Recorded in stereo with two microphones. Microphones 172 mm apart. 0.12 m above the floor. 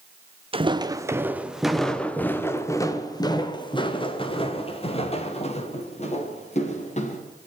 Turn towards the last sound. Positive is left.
turn(degrees=40)  # may be behind; listen again after turning